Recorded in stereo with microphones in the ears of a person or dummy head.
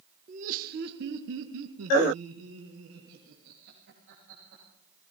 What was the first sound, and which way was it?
Laughter, 40° right (ahead or behind).